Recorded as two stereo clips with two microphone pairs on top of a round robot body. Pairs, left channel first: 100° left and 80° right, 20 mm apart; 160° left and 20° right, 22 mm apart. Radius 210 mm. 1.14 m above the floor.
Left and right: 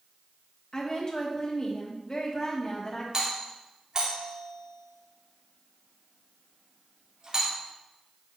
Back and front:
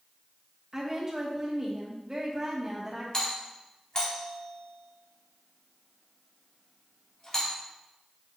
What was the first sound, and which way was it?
A woman speaking, 45° left.